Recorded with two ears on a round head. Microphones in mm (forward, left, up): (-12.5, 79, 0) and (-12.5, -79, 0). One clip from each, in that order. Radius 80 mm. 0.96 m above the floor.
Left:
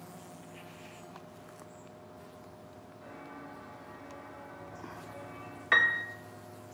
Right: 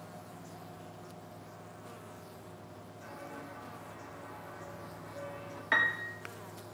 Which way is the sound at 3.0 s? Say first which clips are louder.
Right 1 dB; 65° right (ahead or behind).